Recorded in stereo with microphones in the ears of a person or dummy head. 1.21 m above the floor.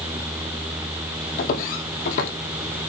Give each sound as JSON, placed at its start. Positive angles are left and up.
{"t": 1.4, "sound": "footsteps", "side_deg": 55, "distance_m": 2.5}